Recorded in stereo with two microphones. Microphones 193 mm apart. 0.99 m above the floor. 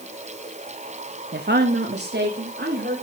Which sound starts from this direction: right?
A woman speaking, at 1.3 s.